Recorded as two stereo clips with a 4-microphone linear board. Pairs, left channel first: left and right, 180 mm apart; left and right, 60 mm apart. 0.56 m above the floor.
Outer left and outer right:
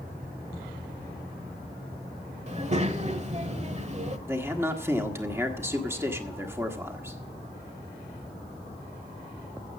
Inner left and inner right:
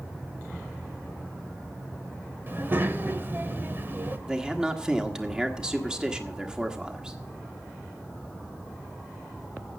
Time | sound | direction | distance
2.5 | a child speaking | 40° right (ahead or behind) | 1.2 m
4.3 | a man speaking | 15° right (ahead or behind) | 1.4 m